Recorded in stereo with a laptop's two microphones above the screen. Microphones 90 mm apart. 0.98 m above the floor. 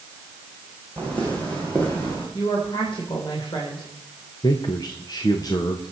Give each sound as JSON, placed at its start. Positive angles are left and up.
{"t": 1.0, "sound": "footsteps", "side_deg": 15, "distance_m": 3.0}
{"t": 2.3, "sound": "a woman speaking", "side_deg": 60, "distance_m": 3.5}
{"t": 4.4, "sound": "a man speaking", "side_deg": 45, "distance_m": 1.1}